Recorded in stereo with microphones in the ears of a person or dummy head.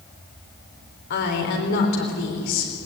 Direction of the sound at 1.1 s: 60° left (ahead or behind).